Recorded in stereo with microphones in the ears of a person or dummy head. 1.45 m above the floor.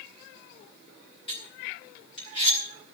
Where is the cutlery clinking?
30° left (ahead or behind), 4.5 m.